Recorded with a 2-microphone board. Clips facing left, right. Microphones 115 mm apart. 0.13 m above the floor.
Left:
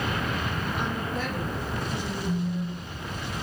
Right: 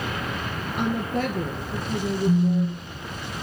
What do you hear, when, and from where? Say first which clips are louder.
0.8 s a woman speaking: right 10 dB; 50° right (ahead or behind), 1.9 m
2.3 s a phone buzzing: right 9 dB; 45° right (ahead or behind), 0.6 m